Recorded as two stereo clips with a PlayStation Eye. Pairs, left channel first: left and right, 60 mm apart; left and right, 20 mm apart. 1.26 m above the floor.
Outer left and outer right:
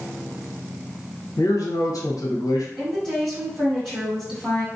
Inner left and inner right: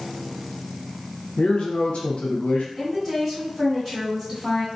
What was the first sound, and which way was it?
A man speaking, 70° left (ahead or behind).